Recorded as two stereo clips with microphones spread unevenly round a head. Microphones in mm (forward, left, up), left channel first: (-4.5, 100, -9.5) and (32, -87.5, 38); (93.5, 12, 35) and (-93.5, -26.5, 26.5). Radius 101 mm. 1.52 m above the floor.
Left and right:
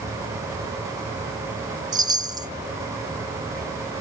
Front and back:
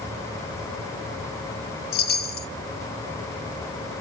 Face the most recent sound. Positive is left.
turn(degrees=-20)